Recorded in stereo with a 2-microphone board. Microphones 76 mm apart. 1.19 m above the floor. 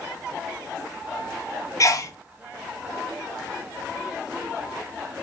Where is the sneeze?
45° left (ahead or behind), 0.5 m.